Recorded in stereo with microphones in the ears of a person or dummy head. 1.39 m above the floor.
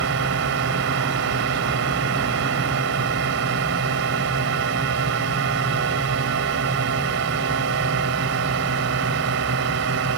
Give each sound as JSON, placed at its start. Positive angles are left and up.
{"t": 0.0, "sound": "a drone", "side_deg": -60}